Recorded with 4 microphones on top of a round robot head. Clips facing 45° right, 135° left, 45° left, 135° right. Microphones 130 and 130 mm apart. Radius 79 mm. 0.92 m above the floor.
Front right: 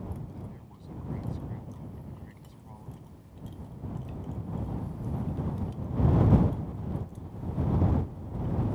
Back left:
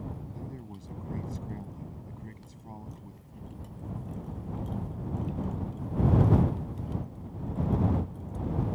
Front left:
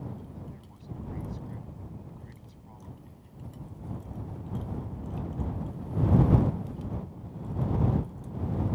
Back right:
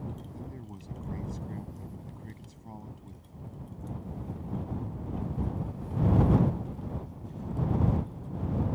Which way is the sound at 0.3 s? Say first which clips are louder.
Back left 3 dB, back right 3 dB; 175° right.